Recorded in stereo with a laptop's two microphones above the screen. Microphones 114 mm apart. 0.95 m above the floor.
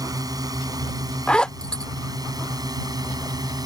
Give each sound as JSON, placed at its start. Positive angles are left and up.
{"t": 0.0, "sound": "a drone", "side_deg": -35}
{"t": 1.3, "sound": "a zipper", "side_deg": 10}